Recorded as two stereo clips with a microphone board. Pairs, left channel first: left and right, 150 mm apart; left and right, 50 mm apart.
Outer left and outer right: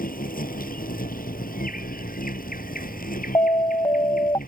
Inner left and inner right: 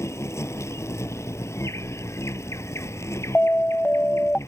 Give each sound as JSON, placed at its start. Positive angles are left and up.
{"t": 0.0, "sound": "an insect", "side_deg": 70}
{"t": 3.4, "sound": "an alarm", "side_deg": 30}